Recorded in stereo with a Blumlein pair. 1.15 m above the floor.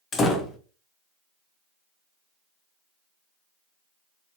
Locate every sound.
0.1 s a door slam: 20° left, 0.6 m